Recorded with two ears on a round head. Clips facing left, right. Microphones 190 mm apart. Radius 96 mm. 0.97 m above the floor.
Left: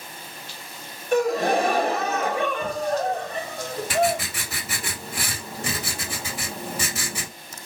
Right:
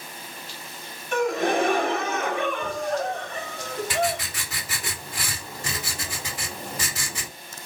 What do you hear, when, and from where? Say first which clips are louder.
1.1 s a gasp: left 2 dB; 35° left (ahead or behind), 0.9 m
3.9 s writing: left 5 dB; 75° left (ahead or behind), 2.5 m